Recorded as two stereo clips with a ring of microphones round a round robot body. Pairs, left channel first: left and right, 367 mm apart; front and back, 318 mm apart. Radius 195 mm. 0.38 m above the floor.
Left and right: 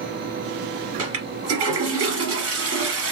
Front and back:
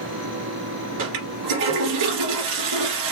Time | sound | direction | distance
1.0 | a toilet flushing | 140° right | 1.9 m